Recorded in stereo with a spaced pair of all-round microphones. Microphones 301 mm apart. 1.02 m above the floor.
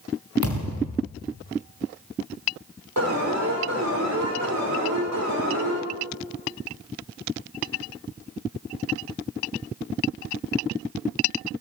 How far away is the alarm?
About 6 m.